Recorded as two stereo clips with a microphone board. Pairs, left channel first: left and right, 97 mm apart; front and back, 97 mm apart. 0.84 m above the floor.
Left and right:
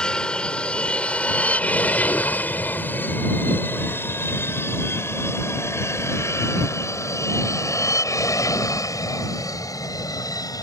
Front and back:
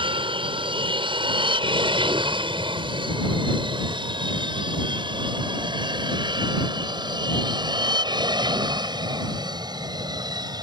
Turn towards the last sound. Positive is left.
turn(degrees=140)